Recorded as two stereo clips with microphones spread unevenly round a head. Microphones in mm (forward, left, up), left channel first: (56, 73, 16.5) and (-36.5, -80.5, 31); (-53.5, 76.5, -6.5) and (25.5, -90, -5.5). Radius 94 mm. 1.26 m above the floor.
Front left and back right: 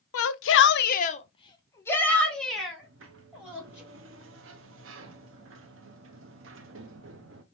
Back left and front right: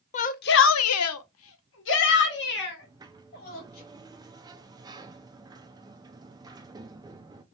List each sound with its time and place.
0.1 s a shout: 60° left, 0.6 m; by 3.8 s 155° left, 2 m
2.8 s a sliding door: 135° right, 0.6 m